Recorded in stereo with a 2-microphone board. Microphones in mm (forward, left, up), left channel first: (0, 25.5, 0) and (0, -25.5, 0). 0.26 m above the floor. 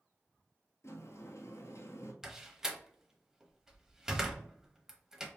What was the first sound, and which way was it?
A sliding door, 65° left (ahead or behind).